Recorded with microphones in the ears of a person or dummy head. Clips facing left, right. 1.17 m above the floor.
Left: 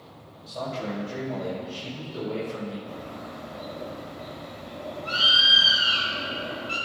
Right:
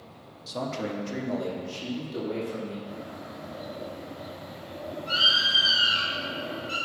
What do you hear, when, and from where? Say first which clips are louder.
0.5 s a man speaking: even; 60° right (ahead or behind), 1.4 m; by 2.8 s 55° right (ahead or behind), 2.5 m
2.9 s a bird: left 1 dB; 10° right (ahead or behind), 1.4 m